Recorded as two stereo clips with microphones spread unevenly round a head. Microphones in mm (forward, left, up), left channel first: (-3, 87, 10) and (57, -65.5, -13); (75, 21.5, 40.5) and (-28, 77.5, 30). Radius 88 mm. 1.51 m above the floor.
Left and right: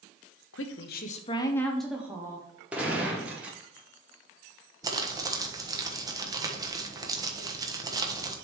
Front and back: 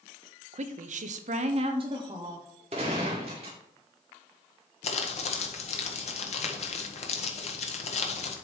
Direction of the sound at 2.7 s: 155° right.